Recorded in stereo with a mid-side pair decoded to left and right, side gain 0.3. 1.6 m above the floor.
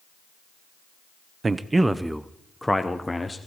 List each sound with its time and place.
1.4 s a man speaking: 45° right, 0.7 m; by 3.4 s 25° left, 1.2 m